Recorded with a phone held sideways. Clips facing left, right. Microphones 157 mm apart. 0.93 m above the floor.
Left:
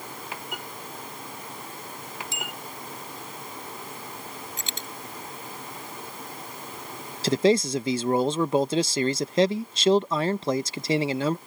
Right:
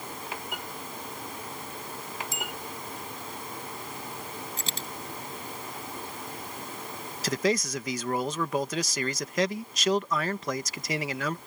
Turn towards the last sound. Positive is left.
turn(degrees=30)  # may be behind; listen again after turning